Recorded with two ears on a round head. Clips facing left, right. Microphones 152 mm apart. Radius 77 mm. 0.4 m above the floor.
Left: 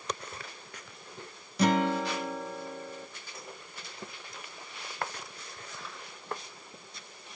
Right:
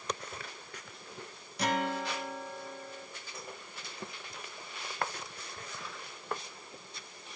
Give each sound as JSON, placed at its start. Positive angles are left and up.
{"t": 1.6, "sound": "a guitar", "side_deg": 70, "distance_m": 0.5}